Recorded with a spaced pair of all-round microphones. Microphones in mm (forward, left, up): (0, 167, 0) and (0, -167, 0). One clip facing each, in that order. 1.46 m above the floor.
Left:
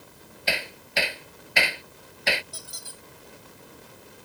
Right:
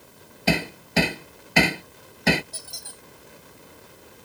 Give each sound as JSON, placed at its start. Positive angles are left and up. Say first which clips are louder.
{"t": 0.5, "sound": "hammering", "louder": "right 10 dB", "side_deg": -60}
{"t": 2.5, "sound": "a squeak", "louder": "even", "side_deg": 10}